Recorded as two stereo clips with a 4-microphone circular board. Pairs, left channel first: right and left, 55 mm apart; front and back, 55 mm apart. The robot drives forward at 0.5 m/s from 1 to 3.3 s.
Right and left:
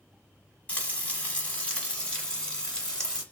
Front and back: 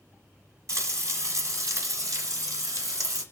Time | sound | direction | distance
0.7 | frying | 150° right | 1.5 m